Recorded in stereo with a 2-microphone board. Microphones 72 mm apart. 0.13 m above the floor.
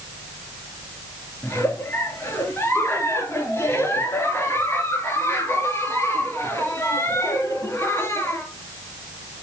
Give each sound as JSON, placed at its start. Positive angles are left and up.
{"t": 1.4, "sound": "a giggle", "side_deg": 35, "distance_m": 2.5}